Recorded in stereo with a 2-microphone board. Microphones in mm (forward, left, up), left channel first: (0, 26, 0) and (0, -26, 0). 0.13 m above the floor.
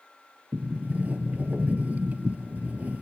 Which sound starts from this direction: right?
A sliding door, at 0.5 s.